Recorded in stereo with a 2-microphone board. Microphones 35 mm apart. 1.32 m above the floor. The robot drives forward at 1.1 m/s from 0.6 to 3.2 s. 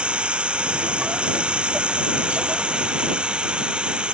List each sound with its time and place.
0.0 s running water: 30° right (ahead or behind)